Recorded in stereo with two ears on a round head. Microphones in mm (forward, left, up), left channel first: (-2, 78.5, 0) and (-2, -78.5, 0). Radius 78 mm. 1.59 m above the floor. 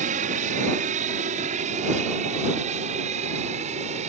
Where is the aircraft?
45° right (ahead or behind); by 4.1 s 40° right (ahead or behind).